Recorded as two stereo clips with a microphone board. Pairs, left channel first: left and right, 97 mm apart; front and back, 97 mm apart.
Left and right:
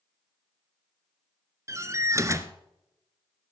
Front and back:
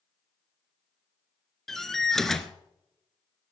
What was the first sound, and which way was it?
A door slam, 85° right.